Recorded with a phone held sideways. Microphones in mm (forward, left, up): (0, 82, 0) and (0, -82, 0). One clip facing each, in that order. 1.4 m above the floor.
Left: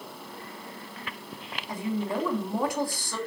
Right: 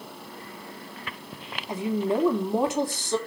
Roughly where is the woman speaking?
Right.